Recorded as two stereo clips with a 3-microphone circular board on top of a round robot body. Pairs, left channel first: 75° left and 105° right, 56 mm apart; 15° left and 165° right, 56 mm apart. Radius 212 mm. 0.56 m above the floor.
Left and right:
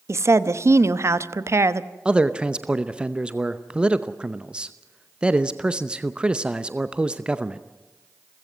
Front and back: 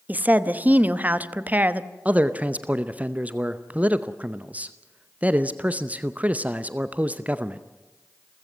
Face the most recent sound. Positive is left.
turn(degrees=-155)